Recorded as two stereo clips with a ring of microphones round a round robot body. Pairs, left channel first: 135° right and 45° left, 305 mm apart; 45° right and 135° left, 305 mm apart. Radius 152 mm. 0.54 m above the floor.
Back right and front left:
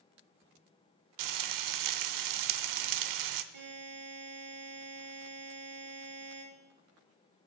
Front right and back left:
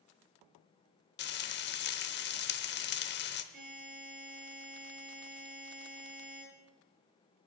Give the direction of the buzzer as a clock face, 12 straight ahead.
10 o'clock.